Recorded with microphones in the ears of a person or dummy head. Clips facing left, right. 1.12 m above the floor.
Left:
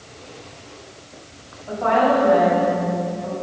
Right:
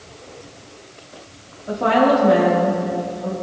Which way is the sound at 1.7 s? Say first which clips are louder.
Right 2 dB; 40° right (ahead or behind).